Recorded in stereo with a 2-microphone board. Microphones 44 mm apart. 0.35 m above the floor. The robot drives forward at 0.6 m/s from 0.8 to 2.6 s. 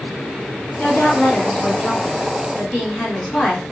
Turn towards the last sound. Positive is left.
turn(degrees=25)  # may be behind; listen again after turning